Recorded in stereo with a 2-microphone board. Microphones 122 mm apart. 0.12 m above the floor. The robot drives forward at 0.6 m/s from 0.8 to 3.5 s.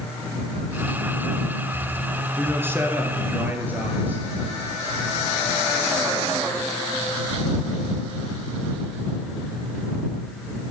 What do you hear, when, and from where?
2.4 s a man speaking: 20° right (ahead or behind), 1.3 m; by 4.2 s 15° right (ahead or behind), 1.7 m